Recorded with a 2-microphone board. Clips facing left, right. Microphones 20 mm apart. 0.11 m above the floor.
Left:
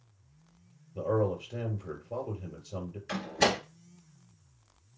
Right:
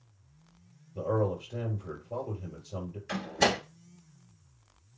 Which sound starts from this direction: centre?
A door slam, at 3.1 s.